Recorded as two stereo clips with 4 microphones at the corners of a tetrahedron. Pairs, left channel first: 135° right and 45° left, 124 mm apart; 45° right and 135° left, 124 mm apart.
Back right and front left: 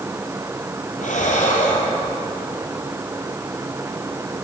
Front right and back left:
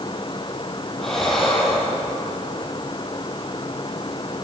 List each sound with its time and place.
1.0 s breathing: 130° right, 4.5 m